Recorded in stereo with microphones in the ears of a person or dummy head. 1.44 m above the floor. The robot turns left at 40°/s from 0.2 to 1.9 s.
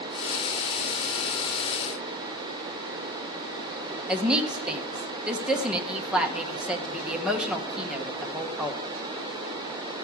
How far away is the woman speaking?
About 0.9 m.